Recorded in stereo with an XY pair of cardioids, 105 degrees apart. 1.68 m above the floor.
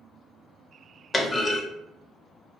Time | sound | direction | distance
1.1 | a clunk | 25° left | 0.6 m